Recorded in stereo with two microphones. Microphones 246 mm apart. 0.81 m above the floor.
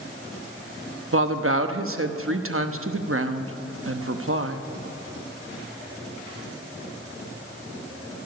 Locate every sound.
1.1 s a woman speaking: 60° right (ahead or behind), 1.0 m